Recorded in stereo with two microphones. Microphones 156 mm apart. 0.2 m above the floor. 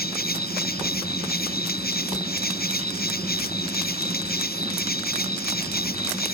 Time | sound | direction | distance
0.0 | an insect | 80° left | ?